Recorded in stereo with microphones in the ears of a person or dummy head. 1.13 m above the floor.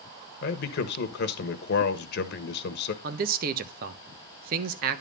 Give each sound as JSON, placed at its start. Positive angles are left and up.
{"t": 0.4, "sound": "a man speaking", "side_deg": 60, "distance_m": 1.3}
{"t": 3.0, "sound": "a man speaking", "side_deg": -50, "distance_m": 0.9}